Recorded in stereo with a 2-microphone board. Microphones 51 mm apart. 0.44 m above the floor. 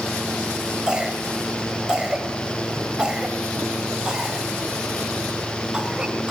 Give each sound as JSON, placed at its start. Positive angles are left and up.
{"t": 0.9, "sound": "a cough", "side_deg": -20, "distance_m": 2.0}